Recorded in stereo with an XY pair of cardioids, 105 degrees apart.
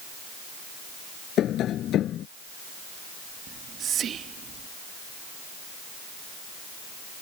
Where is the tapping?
70° left.